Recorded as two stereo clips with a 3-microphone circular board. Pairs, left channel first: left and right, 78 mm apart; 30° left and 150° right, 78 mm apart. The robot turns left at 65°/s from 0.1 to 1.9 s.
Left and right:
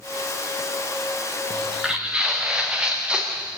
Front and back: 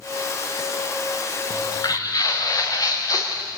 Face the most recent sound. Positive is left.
turn(degrees=-15)